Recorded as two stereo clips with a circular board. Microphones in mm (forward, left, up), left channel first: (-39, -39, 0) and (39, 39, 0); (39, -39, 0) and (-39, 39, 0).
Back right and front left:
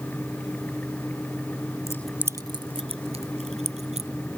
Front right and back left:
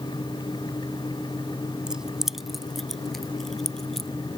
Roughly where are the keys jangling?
Behind right.